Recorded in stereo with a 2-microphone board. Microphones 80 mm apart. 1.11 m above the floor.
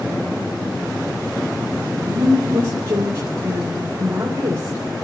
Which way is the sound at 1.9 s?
35° right (ahead or behind).